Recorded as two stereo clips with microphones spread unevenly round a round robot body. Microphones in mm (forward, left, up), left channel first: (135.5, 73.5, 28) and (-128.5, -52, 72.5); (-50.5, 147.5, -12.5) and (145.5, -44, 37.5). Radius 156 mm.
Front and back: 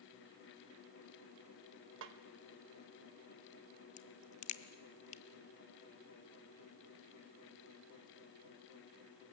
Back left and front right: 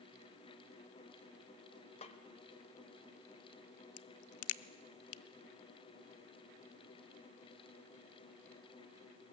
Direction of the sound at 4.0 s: 95° left.